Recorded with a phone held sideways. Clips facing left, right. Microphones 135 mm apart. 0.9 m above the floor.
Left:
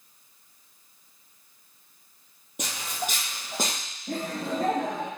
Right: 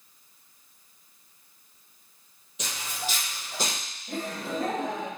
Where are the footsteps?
60° left (ahead or behind), 1.6 m; by 3.8 s 55° left (ahead or behind), 2.5 m.